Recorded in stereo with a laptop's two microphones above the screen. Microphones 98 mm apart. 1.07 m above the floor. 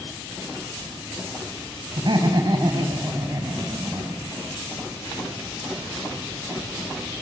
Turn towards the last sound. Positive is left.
turn(degrees=-40)  # may be behind; listen again after turning